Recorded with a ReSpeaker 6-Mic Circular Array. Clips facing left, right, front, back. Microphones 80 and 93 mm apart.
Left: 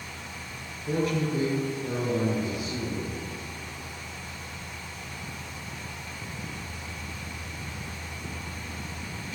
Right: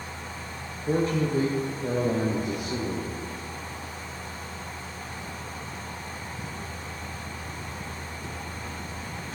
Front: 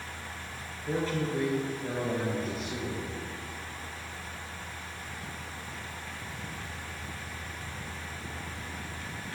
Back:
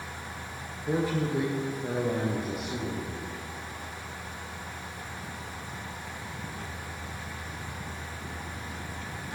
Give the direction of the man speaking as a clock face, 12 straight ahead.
4 o'clock.